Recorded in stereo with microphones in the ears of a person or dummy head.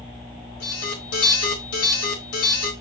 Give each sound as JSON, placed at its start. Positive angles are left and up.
{"t": 0.6, "sound": "an alarm", "side_deg": 85, "distance_m": 3.0}